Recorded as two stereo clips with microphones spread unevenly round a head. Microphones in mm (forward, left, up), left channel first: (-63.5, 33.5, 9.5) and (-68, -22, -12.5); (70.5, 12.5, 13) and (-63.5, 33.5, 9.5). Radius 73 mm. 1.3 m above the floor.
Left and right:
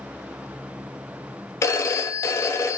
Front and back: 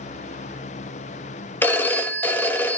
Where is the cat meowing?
No cat meowing in this recording.